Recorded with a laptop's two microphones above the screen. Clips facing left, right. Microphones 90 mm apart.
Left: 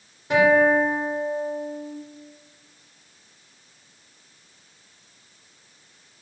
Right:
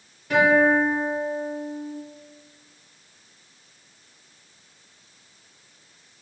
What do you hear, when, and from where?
0.3 s a guitar: 25° left (ahead or behind), 0.9 m